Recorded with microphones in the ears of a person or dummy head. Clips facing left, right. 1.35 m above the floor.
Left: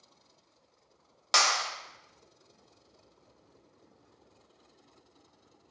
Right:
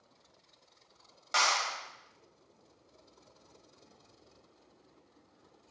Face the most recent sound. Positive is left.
turn(degrees=85)